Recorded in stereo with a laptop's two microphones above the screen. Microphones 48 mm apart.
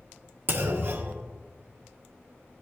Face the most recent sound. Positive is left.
turn(degrees=-50)  # may be behind; listen again after turning